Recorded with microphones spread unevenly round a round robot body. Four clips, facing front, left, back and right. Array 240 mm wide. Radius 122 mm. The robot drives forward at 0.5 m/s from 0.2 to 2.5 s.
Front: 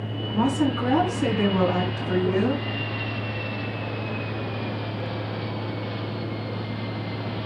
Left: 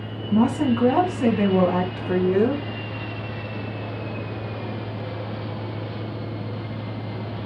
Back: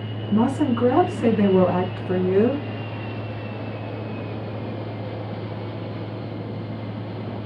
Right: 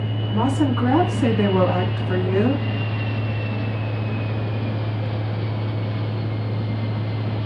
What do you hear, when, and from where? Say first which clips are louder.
0.3 s a woman speaking: left 1 dB, back 3 dB; 125° left, 3 m; by 2.6 s 140° left, 3.5 m